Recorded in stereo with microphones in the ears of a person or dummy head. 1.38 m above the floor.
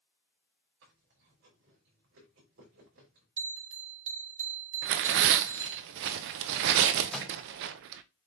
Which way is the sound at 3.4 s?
50° right (ahead or behind).